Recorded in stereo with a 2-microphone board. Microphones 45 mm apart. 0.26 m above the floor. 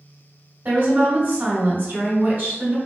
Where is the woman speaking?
45° right (ahead or behind), 1.9 m.